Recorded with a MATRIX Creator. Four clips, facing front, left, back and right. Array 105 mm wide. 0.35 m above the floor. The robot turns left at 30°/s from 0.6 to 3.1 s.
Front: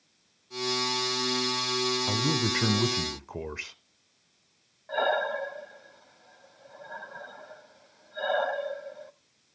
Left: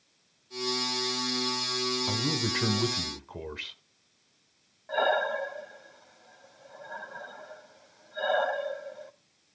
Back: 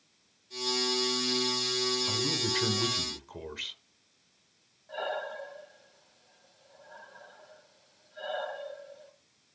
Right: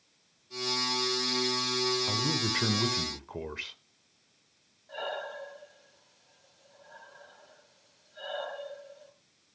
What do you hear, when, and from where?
2.1 s a man speaking: 15° left, 0.9 m; by 3.8 s 15° right, 0.9 m
4.9 s breathing: 50° left, 0.7 m